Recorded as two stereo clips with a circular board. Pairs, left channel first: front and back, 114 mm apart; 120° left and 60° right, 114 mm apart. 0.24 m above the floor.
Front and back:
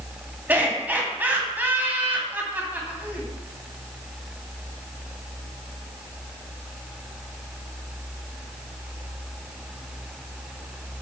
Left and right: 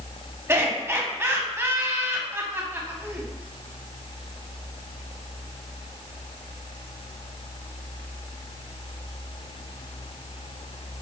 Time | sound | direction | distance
0.5 | laughter | 115° right | 1.6 m